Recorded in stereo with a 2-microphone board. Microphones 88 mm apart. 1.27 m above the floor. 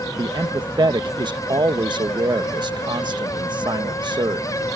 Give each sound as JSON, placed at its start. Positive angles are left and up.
{"t": 0.2, "sound": "a man speaking", "side_deg": -55}